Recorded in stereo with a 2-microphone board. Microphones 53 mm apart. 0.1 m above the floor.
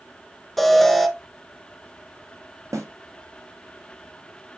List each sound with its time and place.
0.6 s an alarm: 5° left (ahead or behind), 0.8 m
2.7 s a snare drum: 75° right (ahead or behind), 1.8 m